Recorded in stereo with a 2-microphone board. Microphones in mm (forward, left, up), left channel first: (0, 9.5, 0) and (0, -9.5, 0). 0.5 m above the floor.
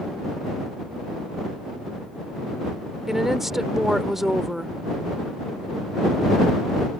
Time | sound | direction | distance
3.1 | a woman speaking | 10° right (ahead or behind) | ?